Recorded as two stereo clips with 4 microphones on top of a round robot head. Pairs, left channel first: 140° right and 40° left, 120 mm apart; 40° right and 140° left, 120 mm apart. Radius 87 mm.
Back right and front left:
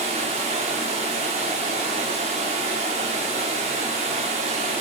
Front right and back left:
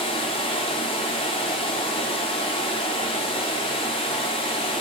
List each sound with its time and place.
0.0 s running water: 5° left, 1.0 m